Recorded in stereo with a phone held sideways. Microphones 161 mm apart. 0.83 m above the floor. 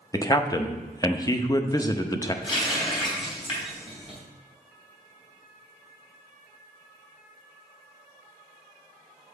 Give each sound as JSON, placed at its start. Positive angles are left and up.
{"t": 0.1, "sound": "a man speaking", "side_deg": 25, "distance_m": 0.5}
{"t": 2.4, "sound": "a running tap", "side_deg": 30, "distance_m": 3.0}